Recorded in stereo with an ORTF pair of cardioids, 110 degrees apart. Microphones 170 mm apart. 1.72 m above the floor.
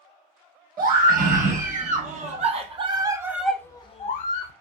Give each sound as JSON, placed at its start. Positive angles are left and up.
{"t": 0.8, "sound": "a scream", "azimuth_deg": -55, "distance_m": 2.0}